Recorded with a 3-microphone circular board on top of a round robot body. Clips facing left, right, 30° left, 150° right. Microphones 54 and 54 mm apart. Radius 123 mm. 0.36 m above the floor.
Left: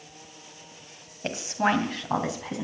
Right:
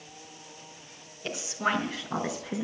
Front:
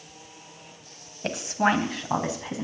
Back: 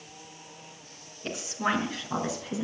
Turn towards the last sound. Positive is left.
turn(degrees=70)